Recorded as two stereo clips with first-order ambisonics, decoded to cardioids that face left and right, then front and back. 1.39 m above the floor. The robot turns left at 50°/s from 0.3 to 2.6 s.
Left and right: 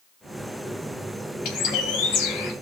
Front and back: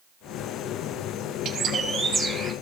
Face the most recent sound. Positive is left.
turn(degrees=70)